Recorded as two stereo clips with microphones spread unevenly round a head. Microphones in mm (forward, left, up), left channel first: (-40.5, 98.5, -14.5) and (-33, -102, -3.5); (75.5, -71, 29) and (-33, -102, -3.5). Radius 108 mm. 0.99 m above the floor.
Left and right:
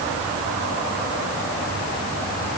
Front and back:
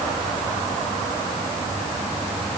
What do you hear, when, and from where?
Only background noise.